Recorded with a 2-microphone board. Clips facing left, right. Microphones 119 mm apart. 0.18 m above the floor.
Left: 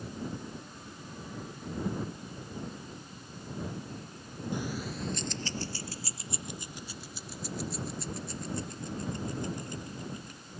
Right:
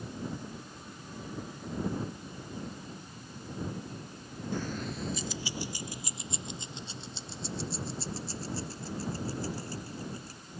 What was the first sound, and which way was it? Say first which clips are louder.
Keys jangling: right 1 dB; 15° left (ahead or behind).